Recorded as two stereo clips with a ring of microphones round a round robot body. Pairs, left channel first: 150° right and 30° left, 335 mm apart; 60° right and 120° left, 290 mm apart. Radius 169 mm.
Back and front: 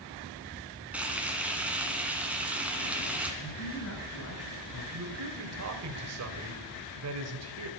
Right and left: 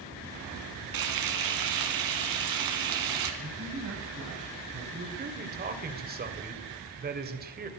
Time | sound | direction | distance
0.9 | frying | 115° left | 2.5 m
3.4 | a man speaking | 165° left | 3 m
4.9 | a man speaking | 65° left | 2.5 m